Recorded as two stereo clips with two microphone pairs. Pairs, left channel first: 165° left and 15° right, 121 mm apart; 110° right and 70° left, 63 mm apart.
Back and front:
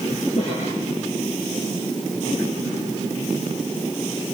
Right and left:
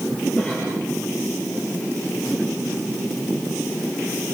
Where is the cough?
175° right, 7 m.